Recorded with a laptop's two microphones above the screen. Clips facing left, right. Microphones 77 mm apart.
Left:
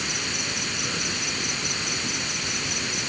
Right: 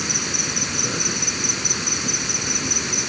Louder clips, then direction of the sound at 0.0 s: Right 3 dB; 15° right (ahead or behind).